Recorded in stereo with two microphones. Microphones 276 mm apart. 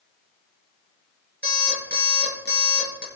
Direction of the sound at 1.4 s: 35° right (ahead or behind).